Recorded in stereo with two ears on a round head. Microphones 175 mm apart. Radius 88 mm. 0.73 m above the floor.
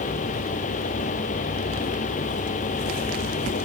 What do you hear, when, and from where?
Only background noise.